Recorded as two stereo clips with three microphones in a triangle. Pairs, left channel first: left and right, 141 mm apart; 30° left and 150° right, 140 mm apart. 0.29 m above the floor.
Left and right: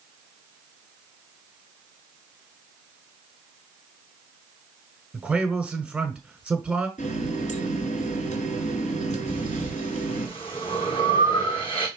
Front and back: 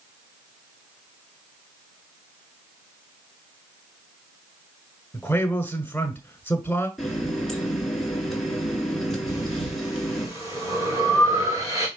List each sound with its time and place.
5.1 s a man speaking: 20° right, 1.5 m
7.0 s a running tap: 120° left, 2.5 m
9.3 s breathing: 140° left, 3.5 m